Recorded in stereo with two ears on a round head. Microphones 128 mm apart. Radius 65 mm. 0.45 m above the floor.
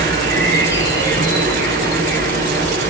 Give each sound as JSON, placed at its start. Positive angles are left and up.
{"t": 0.0, "sound": "an insect", "side_deg": -65, "distance_m": 5.5}